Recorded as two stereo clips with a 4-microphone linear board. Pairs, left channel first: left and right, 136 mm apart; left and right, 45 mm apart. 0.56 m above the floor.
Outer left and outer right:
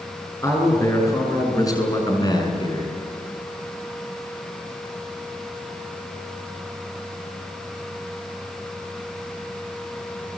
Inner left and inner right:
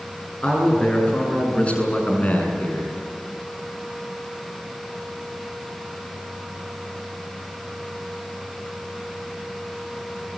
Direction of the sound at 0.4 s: 20° left (ahead or behind).